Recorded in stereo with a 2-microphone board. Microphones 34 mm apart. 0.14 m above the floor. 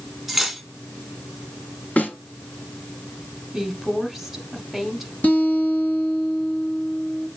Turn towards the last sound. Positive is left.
turn(degrees=45)  # may be behind; listen again after turning